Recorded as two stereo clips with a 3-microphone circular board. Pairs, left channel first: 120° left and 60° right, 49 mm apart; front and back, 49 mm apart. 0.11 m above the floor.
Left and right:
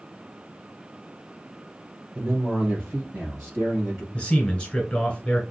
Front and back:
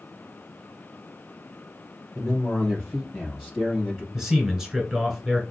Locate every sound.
2.1 s a man speaking: 100° right, 3 m; by 4.0 s 95° right, 4 m
4.1 s a man speaking: 120° left, 1.5 m